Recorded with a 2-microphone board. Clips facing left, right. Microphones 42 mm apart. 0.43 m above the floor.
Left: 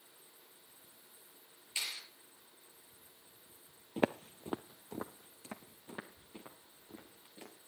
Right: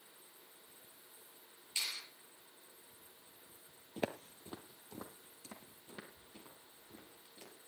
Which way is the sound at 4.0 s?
30° left (ahead or behind).